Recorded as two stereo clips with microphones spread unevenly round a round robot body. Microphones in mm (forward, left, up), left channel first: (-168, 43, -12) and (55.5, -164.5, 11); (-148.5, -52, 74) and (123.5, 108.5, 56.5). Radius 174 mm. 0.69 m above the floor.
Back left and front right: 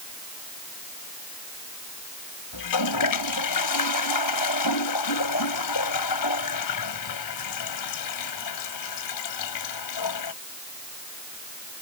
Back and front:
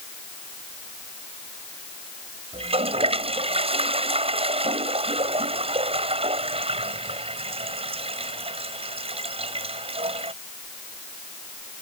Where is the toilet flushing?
105° left.